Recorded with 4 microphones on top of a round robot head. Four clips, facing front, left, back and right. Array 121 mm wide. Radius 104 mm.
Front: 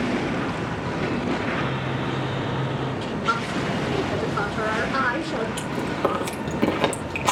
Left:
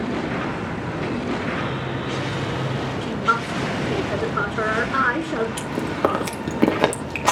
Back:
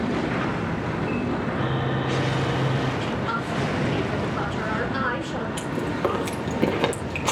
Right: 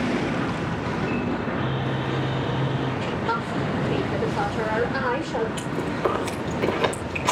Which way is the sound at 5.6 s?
90° left.